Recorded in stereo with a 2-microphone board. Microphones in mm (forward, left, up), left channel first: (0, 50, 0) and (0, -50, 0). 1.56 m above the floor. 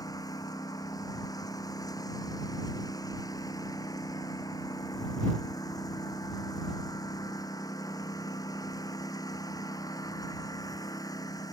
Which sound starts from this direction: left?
A lawn mower, at 0.0 s.